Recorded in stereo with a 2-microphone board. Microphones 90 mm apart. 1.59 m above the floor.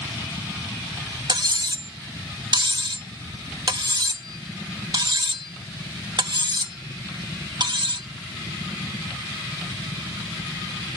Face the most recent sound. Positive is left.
turn(degrees=-55)  # may be behind; listen again after turning